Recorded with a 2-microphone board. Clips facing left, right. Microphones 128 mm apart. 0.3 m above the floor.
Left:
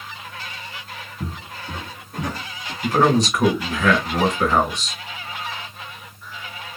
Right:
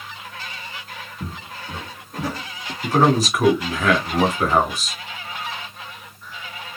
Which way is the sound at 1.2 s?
25° left (ahead or behind).